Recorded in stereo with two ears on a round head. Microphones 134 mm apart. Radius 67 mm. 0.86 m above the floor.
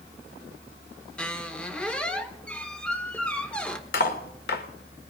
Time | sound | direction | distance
1.2 | a squeak | 10° left (ahead or behind) | 0.9 m
3.9 | cutlery clinking | 75° left (ahead or behind) | 1.5 m